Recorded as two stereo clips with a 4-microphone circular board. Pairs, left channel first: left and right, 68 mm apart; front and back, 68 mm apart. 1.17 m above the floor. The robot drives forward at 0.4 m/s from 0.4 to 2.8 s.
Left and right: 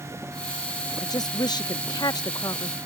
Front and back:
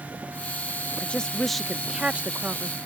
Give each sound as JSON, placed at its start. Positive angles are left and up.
{"t": 1.0, "sound": "a woman speaking", "azimuth_deg": 70}